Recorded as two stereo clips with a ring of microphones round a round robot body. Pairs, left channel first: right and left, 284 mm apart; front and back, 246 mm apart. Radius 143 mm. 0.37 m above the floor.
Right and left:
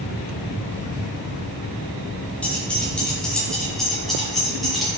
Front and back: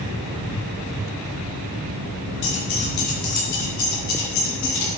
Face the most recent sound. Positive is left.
turn(degrees=0)